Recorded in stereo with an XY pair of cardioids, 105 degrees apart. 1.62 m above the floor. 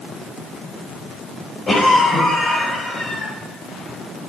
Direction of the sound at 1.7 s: 30° left.